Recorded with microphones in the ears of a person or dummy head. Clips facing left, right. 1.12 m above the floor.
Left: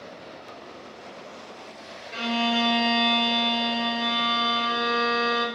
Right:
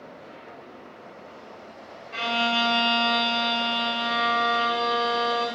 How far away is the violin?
About 1.0 m.